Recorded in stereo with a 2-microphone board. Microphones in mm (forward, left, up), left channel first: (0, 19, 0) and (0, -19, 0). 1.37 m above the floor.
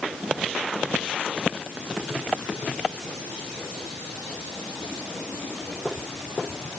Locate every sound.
Only background noise.